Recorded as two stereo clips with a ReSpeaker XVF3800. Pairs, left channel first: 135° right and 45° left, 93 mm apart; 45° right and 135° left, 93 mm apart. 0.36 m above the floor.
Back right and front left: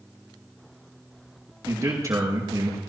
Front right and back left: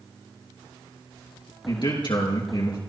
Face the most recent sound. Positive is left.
turn(degrees=-10)